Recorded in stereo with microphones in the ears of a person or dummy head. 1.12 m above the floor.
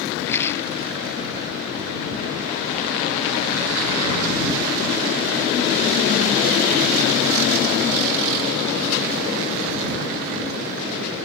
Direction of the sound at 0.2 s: 10° left (ahead or behind).